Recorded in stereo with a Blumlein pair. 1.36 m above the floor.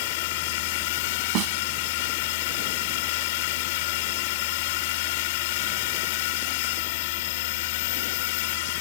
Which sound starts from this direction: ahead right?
A snare drum, at 1.4 s.